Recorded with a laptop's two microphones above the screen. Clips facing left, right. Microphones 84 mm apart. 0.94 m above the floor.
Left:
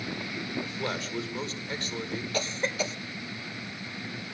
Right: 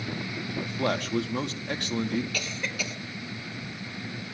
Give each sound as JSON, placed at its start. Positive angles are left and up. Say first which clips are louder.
{"t": 0.6, "sound": "a man speaking", "louder": "right 8 dB", "side_deg": -65, "distance_m": 2.0}
{"t": 2.3, "sound": "a cough", "louder": "left 4 dB", "side_deg": 30, "distance_m": 0.9}